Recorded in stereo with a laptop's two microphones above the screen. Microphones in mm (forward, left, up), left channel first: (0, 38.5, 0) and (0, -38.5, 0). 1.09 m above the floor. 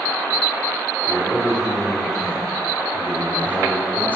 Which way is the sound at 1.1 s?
5° right (ahead or behind).